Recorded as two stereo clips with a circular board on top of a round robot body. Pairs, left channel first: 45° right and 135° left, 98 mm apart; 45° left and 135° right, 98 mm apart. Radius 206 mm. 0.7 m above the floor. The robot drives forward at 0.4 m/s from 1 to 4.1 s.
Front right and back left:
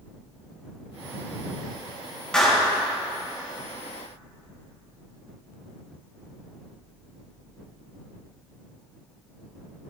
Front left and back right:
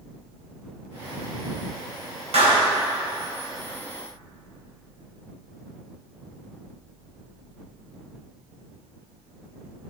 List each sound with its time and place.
2.3 s a clap: 130° right, 4 m